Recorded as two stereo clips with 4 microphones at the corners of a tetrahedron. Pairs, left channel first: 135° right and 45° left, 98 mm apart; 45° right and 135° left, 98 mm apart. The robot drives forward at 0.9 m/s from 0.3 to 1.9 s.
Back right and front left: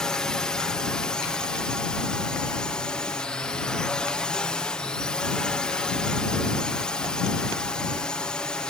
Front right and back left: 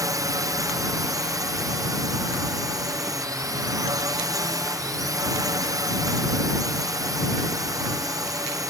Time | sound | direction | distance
0.0 | a drone | 145° left | ?